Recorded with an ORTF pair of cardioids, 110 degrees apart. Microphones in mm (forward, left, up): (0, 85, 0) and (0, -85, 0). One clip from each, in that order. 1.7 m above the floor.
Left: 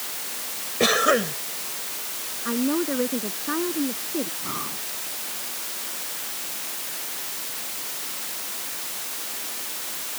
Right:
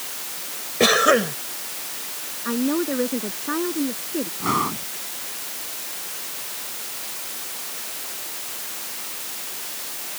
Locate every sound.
0.8 s a cough: 20° right
2.5 s a woman speaking: 10° right
4.4 s breathing: 65° right